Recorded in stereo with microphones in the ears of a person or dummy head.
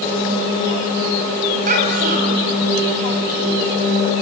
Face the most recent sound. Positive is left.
turn(degrees=-50)  # may be behind; listen again after turning